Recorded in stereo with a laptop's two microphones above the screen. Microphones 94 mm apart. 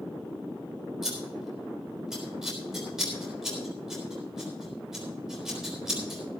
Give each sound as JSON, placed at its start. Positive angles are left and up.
{"t": 1.0, "sound": "scissors", "side_deg": -5, "distance_m": 4.0}